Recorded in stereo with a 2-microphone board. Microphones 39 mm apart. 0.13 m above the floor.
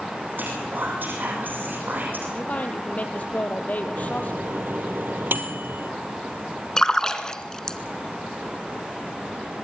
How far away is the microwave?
About 2.5 m.